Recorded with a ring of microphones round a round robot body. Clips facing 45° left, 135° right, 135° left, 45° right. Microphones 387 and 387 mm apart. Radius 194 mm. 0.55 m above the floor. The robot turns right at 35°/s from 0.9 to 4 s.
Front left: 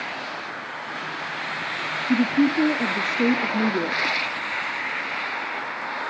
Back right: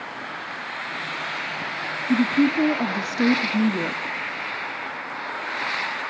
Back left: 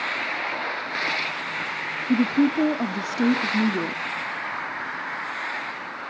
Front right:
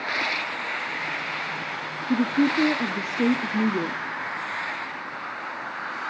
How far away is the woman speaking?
About 0.7 m.